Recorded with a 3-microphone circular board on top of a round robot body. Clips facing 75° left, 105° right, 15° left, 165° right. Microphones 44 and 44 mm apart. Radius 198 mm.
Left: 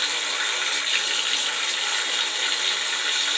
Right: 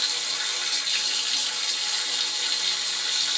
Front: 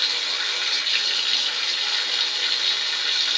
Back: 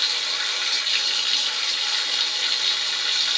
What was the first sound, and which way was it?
Running water, 100° left.